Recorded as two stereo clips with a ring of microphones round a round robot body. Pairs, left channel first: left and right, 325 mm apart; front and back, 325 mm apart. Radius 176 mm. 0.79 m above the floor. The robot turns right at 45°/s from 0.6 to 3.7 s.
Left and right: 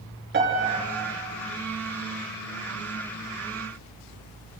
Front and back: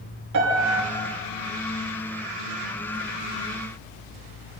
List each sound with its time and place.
0.3 s a piano: 145° right, 7 m; by 0.8 s 140° right, 7 m